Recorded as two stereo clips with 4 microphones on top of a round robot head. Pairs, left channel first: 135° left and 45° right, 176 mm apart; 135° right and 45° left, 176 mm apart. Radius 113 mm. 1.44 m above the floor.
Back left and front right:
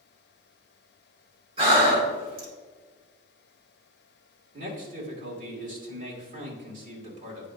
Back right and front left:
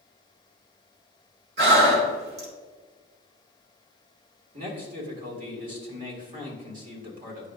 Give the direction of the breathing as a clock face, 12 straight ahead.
12 o'clock.